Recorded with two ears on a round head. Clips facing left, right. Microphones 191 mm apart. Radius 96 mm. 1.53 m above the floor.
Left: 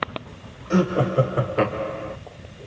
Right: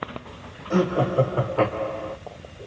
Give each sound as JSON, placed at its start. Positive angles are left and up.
{"t": 0.7, "sound": "laughter", "side_deg": 25, "distance_m": 0.6}